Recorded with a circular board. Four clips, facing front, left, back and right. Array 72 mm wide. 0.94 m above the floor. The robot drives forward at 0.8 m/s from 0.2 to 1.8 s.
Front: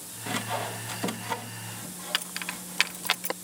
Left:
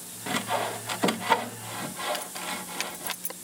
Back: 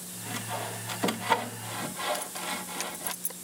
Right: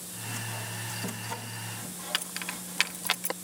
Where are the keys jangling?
25° right.